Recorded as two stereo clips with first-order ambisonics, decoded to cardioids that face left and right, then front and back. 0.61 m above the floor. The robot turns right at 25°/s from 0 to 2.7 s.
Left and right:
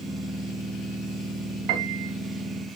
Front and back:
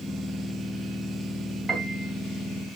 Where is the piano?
105° right, 1.4 m; by 2.1 s 95° right, 1.4 m.